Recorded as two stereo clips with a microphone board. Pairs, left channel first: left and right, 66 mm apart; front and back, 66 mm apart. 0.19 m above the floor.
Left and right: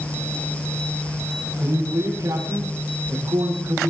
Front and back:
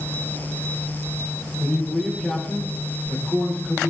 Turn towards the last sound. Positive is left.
turn(degrees=-75)